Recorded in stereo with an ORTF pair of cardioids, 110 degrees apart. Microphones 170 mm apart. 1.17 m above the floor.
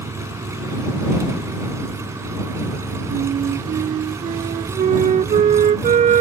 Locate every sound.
0.0 s an engine running: 15° right
3.1 s a flute: 45° right